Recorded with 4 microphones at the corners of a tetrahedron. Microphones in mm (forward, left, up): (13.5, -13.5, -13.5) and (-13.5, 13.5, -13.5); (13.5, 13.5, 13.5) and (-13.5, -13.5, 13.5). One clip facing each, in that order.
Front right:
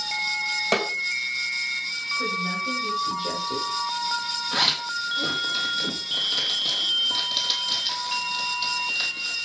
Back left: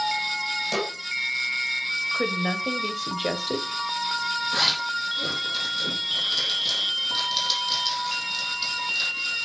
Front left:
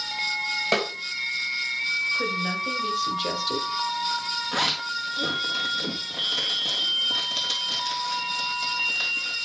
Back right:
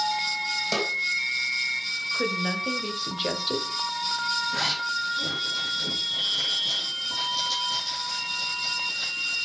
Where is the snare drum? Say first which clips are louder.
Front right 5 dB, front left 4 dB; 5° right, 2.5 m.